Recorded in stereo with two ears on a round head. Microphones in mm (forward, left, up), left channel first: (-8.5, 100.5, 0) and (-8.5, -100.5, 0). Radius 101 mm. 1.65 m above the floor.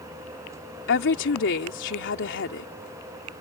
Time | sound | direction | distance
0.9 | a woman speaking | 55° left (ahead or behind) | ?